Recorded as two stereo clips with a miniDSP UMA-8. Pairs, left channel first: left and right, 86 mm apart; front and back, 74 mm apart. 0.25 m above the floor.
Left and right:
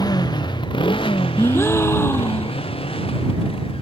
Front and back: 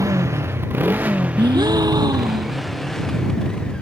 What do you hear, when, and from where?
0.0 s a motorcycle: 130° left; by 3.8 s 80° left
1.4 s a gasp: 155° left